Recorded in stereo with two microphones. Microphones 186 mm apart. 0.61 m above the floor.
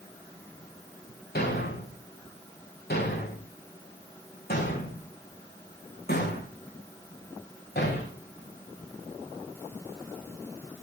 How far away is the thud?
About 7 m.